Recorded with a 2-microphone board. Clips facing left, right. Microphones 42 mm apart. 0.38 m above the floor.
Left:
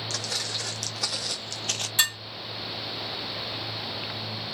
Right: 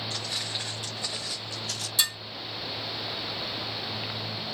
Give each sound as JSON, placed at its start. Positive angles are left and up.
{"t": 0.1, "sound": "footsteps", "side_deg": 75, "distance_m": 1.3}
{"t": 2.0, "sound": "dishes clattering", "side_deg": 40, "distance_m": 1.4}